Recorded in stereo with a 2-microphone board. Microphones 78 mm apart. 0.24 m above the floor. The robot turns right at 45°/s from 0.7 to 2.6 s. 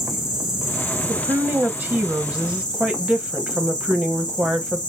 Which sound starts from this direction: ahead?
An insect, at 0.0 s.